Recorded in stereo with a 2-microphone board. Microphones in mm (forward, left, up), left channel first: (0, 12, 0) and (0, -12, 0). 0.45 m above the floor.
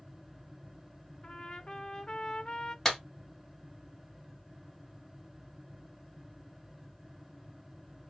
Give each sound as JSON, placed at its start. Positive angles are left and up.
{"t": 1.2, "sound": "a trumpet", "side_deg": 40, "distance_m": 0.5}
{"t": 2.9, "sound": "a clap", "side_deg": 15, "distance_m": 1.6}